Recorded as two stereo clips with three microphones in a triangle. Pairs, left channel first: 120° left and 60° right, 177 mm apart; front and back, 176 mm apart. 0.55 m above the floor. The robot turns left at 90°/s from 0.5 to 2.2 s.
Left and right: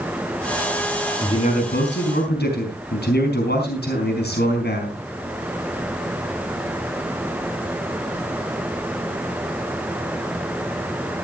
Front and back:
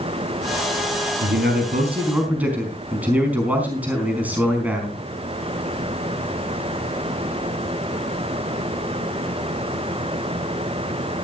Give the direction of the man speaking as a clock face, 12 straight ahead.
6 o'clock.